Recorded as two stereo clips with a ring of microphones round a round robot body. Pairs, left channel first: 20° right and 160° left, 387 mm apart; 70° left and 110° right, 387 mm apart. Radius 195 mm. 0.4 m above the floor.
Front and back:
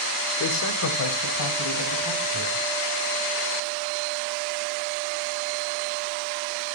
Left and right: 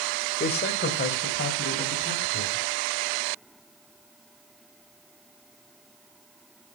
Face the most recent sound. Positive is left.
turn(degrees=10)